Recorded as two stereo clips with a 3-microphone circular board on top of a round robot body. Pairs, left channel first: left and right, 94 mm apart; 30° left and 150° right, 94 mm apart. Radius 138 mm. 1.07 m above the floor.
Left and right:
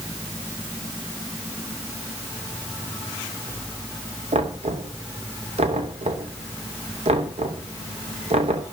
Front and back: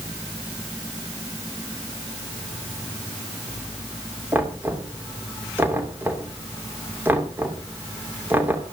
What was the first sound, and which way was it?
Knocking, 80° right.